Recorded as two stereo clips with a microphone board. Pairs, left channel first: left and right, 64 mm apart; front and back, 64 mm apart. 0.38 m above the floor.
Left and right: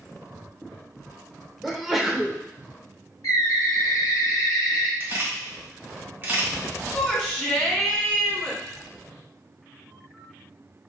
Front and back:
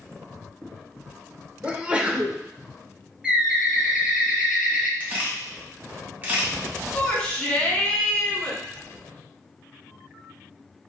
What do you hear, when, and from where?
1.6 s a sneeze: 170° right, 0.8 m
3.2 s a bird: 110° left, 1.0 m
5.0 s a camera shutter: 130° right, 1.7 m
6.9 s a shout: 25° left, 1.5 m